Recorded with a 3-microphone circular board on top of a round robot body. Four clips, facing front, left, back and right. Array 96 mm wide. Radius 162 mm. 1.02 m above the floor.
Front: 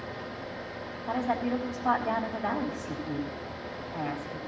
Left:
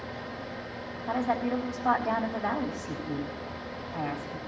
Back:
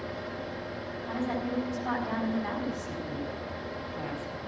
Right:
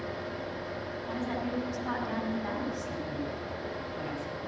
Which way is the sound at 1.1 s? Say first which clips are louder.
Left 7 dB, front 4 dB; 50° left.